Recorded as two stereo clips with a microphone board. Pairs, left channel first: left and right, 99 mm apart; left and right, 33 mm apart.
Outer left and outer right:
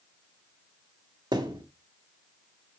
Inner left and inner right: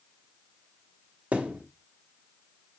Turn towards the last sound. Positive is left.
turn(degrees=-45)  # may be behind; listen again after turning